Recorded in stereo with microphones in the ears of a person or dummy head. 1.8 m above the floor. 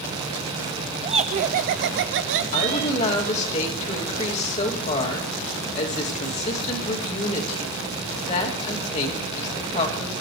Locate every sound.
1.0 s laughter: 25° right (ahead or behind), 1.0 m; by 3.5 s 45° right (ahead or behind), 1.4 m
2.5 s a woman speaking: 40° left (ahead or behind), 2.5 m